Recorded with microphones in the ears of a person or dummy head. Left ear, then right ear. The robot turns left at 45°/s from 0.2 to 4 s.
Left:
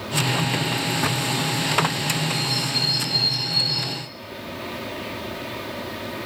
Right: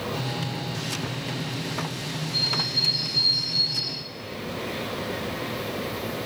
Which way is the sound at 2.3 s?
100° left.